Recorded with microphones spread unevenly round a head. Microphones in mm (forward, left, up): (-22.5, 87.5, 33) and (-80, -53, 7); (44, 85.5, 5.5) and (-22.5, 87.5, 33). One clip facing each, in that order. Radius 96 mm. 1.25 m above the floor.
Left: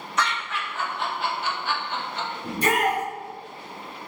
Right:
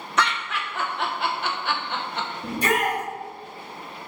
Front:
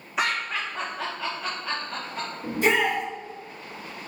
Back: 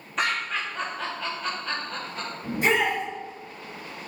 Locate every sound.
0.2 s laughter: 80° right, 1.0 m
2.4 s a shout: 95° right, 2.5 m